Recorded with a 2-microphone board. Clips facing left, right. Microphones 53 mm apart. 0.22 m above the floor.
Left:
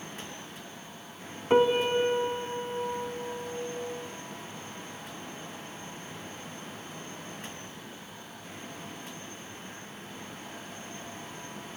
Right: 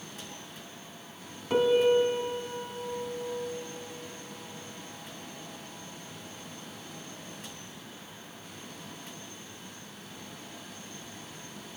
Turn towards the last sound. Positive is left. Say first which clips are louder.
# even
turn(degrees=35)  # may be behind; listen again after turning